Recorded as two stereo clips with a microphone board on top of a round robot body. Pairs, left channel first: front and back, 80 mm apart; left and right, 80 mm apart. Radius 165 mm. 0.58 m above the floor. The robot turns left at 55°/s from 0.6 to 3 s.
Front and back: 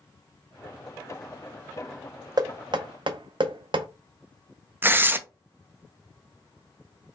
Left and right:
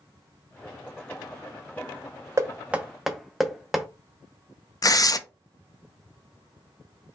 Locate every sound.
2.4 s knocking: 145° right, 0.6 m; by 3.9 s straight behind, 0.6 m
4.8 s tearing paper: 120° left, 0.5 m